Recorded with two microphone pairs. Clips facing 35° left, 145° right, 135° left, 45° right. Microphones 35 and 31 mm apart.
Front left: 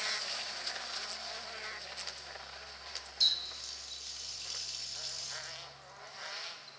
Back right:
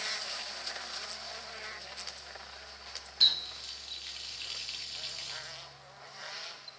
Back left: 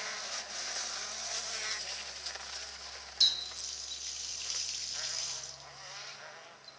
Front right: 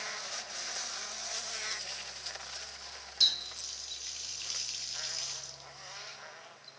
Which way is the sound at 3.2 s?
120° right.